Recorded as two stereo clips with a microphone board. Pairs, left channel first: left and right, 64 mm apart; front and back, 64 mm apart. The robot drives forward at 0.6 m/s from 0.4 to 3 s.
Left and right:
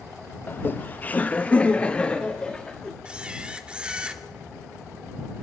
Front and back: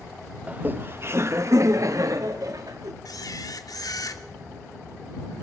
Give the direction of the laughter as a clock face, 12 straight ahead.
8 o'clock.